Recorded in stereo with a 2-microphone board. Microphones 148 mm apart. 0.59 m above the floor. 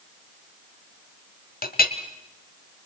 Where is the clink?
75° left (ahead or behind), 1.5 m.